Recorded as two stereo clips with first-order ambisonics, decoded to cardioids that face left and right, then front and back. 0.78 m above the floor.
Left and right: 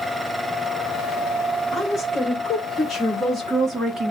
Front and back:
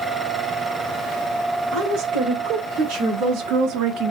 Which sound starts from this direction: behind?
A woman speaking, at 1.7 s.